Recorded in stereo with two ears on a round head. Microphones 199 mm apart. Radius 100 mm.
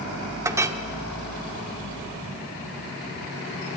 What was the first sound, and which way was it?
A clink, 15° right (ahead or behind).